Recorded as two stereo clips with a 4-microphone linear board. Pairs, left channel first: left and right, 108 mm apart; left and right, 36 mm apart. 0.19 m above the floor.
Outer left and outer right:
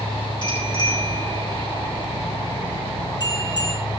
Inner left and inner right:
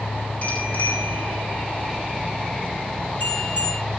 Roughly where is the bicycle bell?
Left.